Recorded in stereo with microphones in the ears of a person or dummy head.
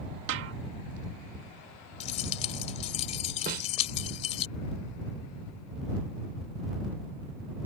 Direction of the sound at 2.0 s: 40° left (ahead or behind).